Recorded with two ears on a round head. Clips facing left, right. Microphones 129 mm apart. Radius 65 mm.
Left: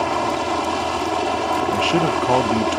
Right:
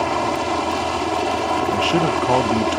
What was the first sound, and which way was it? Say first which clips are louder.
A helicopter: even; centre (ahead or behind).